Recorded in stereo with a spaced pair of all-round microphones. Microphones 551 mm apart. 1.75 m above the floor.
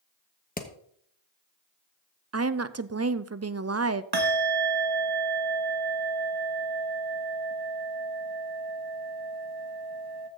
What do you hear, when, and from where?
0.6 s hammering: 15° left (ahead or behind), 1.1 m
2.3 s a woman speaking: 30° right (ahead or behind), 0.5 m
4.1 s a bell: 45° right (ahead or behind), 1.4 m